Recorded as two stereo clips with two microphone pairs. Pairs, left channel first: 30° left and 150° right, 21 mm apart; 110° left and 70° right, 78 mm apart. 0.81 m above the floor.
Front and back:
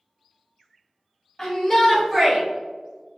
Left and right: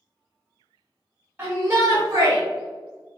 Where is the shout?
20° right, 1.4 m; by 2.4 s 100° right, 1.1 m.